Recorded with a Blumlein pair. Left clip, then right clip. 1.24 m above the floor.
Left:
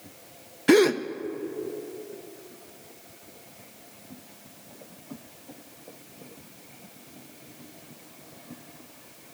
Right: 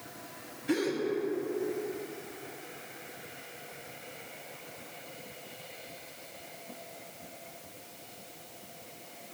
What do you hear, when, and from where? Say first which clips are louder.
0.7 s a gasp: left 12 dB; 40° left, 0.5 m